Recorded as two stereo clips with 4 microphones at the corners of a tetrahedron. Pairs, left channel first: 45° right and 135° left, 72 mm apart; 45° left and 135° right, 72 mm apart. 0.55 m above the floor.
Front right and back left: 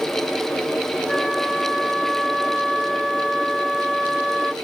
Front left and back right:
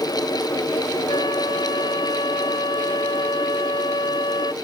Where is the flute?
45° left.